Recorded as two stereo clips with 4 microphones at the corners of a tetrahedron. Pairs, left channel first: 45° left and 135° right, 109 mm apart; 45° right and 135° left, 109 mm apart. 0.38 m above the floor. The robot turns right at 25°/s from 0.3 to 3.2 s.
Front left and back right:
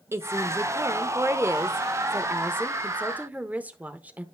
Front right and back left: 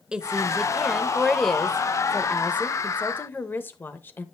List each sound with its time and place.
0.1 s a woman speaking: 150° right, 0.8 m; by 4.2 s 80° right, 0.8 m